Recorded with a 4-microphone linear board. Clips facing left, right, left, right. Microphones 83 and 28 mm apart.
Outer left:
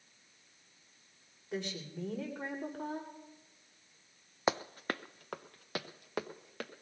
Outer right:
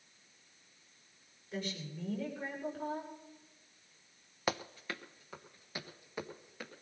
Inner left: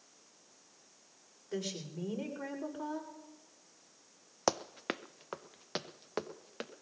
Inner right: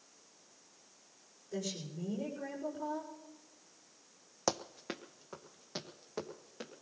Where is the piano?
No piano in this recording.